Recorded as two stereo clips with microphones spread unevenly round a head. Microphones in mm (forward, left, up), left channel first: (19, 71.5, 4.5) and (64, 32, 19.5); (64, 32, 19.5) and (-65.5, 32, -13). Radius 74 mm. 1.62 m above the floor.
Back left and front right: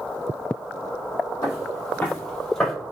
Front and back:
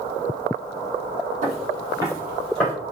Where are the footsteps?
175° right, 1.9 m; by 2.7 s 40° left, 1.9 m.